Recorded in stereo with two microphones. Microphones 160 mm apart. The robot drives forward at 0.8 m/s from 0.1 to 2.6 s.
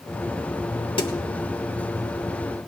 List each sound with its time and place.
1.0 s a snare drum: 35° left (ahead or behind), 0.8 m